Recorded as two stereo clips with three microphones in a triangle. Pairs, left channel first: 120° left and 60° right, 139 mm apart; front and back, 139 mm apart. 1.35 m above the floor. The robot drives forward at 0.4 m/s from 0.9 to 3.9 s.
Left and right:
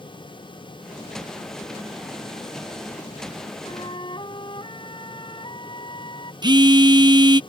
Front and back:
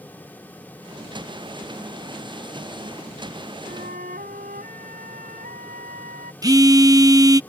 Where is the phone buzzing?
115° right.